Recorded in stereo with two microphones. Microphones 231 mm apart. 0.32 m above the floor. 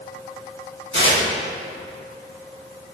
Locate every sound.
0.9 s tearing paper: 60° left (ahead or behind), 2.5 m